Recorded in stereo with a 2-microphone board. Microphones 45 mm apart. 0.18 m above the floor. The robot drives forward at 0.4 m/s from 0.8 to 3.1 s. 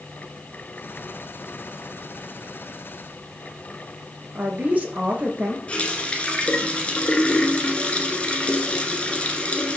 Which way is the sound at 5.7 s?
30° left (ahead or behind).